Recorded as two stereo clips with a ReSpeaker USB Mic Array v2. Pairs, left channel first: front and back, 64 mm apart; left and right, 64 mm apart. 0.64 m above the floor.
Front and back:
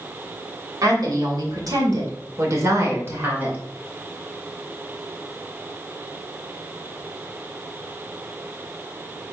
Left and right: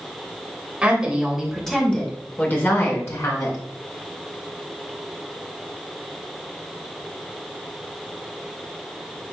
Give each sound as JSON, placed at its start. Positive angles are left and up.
{"t": 0.8, "sound": "a woman speaking", "azimuth_deg": -165, "distance_m": 2.5}